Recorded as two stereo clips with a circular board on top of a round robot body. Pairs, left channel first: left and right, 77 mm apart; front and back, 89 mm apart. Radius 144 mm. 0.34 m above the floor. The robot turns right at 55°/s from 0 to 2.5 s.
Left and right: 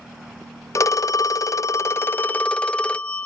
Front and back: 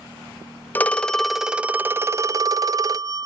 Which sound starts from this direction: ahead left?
A phone ringing, at 0.8 s.